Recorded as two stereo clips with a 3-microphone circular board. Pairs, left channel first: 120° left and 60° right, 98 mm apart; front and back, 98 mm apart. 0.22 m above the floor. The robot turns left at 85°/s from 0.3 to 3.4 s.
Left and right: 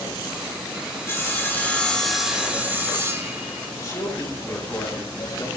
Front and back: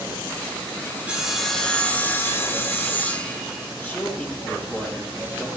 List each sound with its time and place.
1.1 s sawing: 120° left, 1.7 m; by 3.7 s 80° right, 1.7 m
3.8 s a man speaking: 70° left, 3.5 m